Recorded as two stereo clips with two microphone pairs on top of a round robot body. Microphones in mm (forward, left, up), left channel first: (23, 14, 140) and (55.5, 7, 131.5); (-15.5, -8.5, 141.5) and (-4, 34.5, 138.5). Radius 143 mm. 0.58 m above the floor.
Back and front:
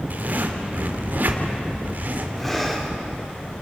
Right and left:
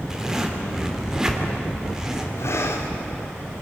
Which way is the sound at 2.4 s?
95° right.